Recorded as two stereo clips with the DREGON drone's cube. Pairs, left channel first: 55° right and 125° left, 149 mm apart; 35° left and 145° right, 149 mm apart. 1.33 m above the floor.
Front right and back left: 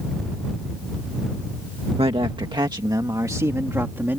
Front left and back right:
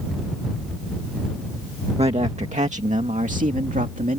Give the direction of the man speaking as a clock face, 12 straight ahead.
6 o'clock.